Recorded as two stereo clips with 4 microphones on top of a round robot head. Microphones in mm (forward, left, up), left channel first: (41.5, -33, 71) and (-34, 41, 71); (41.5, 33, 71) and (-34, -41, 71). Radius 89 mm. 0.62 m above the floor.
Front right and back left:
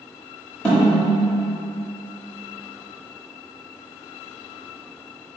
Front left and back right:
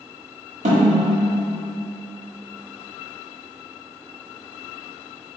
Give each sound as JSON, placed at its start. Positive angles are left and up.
{"t": 0.7, "sound": "a snare drum", "azimuth_deg": -125, "distance_m": 1.2}